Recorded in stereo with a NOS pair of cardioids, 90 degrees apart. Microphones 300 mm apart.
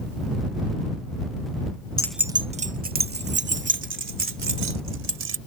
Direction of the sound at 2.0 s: 15° left.